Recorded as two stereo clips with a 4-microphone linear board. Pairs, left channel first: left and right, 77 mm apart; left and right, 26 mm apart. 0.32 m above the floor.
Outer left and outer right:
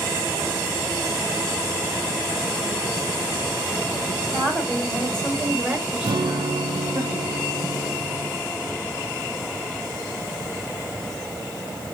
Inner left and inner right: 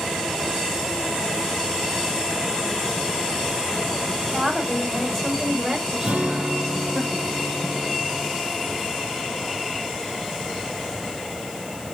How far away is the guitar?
About 0.7 m.